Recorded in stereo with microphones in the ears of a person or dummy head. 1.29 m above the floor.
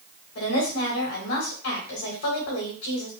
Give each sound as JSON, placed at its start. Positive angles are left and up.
{"t": 0.3, "sound": "a woman speaking", "side_deg": 80, "distance_m": 2.5}